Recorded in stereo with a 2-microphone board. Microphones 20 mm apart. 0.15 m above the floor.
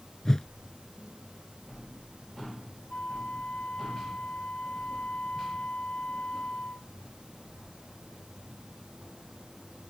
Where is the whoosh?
25° left (ahead or behind).